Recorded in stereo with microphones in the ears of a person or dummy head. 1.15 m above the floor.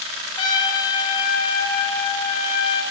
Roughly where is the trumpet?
Centre.